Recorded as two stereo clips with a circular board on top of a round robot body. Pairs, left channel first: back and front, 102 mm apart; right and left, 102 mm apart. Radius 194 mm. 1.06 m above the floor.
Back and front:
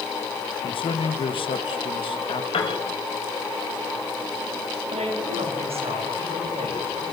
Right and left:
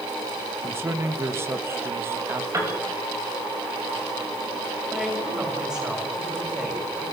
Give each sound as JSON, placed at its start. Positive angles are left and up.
{"t": 0.6, "sound": "a man speaking", "azimuth_deg": 155, "distance_m": 1.7}
{"t": 2.5, "sound": "a piano", "azimuth_deg": 150, "distance_m": 4.0}
{"t": 4.9, "sound": "a woman speaking", "azimuth_deg": 10, "distance_m": 7.0}